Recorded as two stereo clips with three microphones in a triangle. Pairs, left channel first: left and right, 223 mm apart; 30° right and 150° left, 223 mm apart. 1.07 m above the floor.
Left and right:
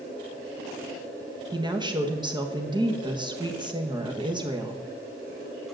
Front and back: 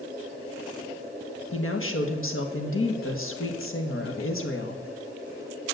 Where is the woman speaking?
20° right, 1.4 m.